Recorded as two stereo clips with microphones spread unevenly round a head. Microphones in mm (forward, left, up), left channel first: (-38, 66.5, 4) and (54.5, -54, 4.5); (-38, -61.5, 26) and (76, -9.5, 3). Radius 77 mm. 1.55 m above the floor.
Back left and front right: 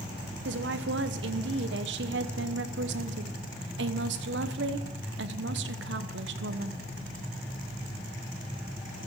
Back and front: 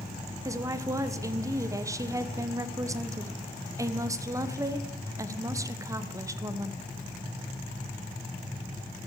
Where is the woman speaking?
40° right, 1.1 m.